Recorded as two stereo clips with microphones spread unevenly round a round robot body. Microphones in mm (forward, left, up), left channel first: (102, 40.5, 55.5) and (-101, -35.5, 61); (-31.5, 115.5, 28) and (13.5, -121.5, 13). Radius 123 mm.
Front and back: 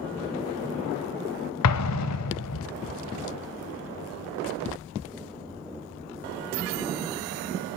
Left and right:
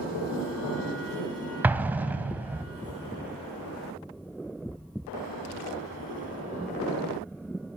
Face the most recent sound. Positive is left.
turn(degrees=5)